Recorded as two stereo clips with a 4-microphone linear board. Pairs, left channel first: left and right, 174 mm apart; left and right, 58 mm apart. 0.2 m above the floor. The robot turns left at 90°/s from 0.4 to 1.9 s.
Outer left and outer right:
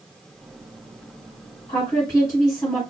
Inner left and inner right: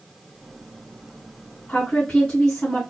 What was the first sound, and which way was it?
A woman speaking, 30° left (ahead or behind).